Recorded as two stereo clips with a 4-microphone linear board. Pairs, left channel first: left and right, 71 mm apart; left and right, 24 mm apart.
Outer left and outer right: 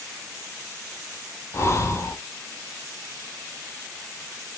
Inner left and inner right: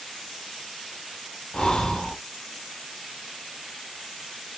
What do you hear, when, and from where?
1.5 s breathing: 40° left (ahead or behind), 0.7 m